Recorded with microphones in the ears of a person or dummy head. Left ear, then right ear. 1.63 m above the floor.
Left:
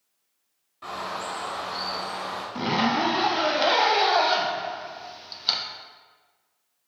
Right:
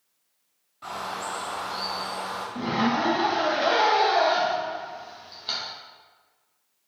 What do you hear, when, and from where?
0.8 s a bird: 5° left (ahead or behind), 0.7 m
2.5 s a zipper: 30° left (ahead or behind), 0.6 m